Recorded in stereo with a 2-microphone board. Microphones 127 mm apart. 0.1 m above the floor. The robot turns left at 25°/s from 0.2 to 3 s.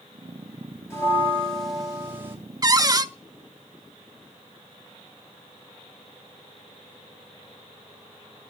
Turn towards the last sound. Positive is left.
turn(degrees=-30)  # may be behind; listen again after turning